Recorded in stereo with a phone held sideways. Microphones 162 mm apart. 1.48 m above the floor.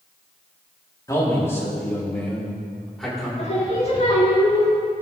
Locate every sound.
1.1 s a man speaking: 20° left (ahead or behind), 3.5 m; by 3.3 s centre (ahead or behind), 5 m
3.4 s singing: 45° left (ahead or behind), 4 m